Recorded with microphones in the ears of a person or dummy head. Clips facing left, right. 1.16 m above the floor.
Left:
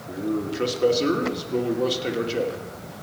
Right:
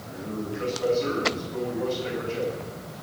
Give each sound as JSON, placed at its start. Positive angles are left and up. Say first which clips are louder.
{"t": 0.1, "sound": "a man speaking", "louder": "left 6 dB", "side_deg": 50, "distance_m": 2.5}